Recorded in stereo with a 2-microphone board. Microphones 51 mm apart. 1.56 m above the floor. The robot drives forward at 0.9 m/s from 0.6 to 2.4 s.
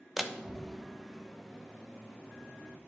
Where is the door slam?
5° right (ahead or behind), 0.8 m; by 2.8 s centre (ahead or behind), 2.5 m.